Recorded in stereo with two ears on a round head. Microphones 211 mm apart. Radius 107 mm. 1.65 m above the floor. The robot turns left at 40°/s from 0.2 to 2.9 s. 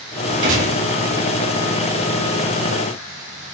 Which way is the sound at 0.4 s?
50° right (ahead or behind).